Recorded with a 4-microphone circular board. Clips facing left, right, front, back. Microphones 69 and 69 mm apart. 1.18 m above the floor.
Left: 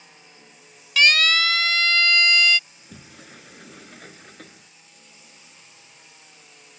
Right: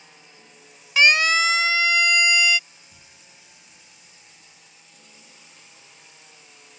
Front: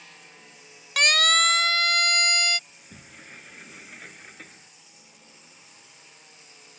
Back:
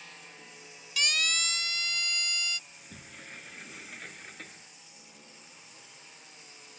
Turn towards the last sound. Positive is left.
turn(degrees=85)